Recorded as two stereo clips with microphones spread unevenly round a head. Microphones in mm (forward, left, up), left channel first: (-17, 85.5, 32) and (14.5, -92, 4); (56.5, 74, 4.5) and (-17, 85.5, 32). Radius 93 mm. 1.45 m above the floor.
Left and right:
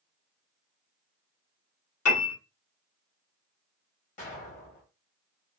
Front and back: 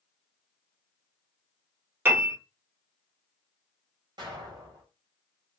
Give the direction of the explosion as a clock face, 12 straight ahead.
7 o'clock.